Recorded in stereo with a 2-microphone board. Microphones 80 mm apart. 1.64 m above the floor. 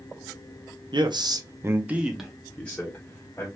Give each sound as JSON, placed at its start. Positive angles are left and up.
{"t": 0.9, "sound": "a man speaking", "side_deg": -75, "distance_m": 0.7}